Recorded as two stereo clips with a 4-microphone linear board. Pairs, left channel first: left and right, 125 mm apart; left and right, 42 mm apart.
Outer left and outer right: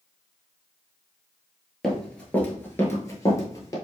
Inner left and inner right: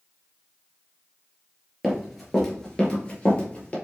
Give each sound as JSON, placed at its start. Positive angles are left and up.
{"t": 1.8, "sound": "running footsteps", "side_deg": 0, "distance_m": 1.4}